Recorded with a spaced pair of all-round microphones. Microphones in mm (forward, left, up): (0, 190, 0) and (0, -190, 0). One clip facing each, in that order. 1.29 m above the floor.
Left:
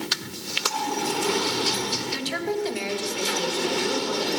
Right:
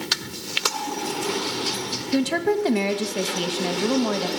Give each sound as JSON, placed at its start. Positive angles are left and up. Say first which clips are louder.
{"t": 2.1, "sound": "a woman speaking", "louder": "right 9 dB", "side_deg": -60, "distance_m": 2.0}